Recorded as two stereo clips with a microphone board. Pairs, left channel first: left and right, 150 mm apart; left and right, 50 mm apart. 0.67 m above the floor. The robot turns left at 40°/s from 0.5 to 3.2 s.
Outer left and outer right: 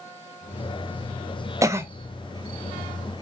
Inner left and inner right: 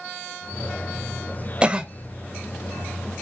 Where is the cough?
20° right (ahead or behind), 0.8 m; by 1.9 s 15° right (ahead or behind), 0.8 m.